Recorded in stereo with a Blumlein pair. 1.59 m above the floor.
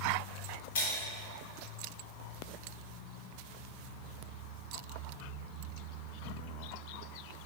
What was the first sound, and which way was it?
Breaking glass, 50° left.